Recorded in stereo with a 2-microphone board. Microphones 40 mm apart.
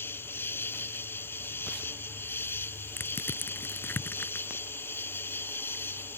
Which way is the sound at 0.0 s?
80° left.